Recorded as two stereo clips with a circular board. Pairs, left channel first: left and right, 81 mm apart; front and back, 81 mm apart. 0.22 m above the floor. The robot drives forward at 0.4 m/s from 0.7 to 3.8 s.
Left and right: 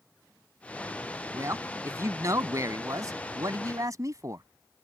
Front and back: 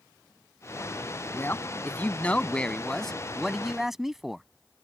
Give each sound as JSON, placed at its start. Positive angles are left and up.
{"t": 1.3, "sound": "a man speaking", "azimuth_deg": -55}